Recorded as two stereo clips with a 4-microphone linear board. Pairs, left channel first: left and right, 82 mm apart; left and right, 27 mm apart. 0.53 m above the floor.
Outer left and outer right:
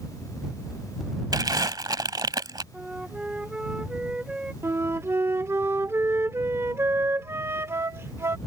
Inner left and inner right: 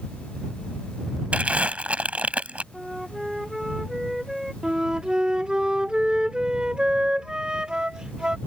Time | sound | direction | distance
1.3 | crumpling | 60° right (ahead or behind) | ?
2.7 | a flute | 10° right (ahead or behind) | ?
4.6 | a flute | 35° right (ahead or behind) | ?